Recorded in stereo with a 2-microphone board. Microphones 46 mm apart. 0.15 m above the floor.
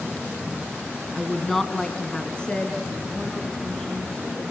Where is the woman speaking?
Centre (ahead or behind), 1.4 m; by 4.4 s 15° left (ahead or behind), 4.5 m.